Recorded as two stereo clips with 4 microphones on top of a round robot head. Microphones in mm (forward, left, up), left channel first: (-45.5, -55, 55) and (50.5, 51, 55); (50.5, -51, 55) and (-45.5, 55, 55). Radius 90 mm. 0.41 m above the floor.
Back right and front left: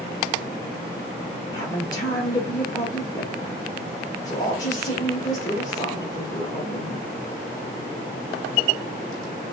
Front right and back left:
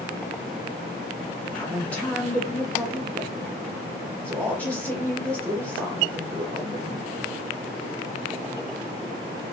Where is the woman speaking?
120° right, 1.2 m.